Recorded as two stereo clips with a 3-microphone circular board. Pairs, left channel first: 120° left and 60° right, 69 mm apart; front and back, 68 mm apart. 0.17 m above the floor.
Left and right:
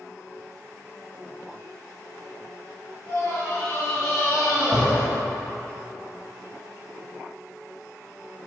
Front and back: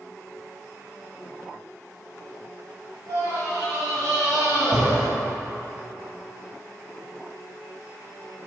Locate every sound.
3.1 s a scream: 175° right, 2.5 m; by 5.1 s 155° left, 3.5 m